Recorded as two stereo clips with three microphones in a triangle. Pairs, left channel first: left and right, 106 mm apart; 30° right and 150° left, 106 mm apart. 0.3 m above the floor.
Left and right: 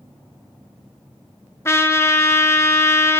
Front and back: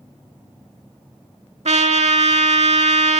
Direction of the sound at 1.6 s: 155° left.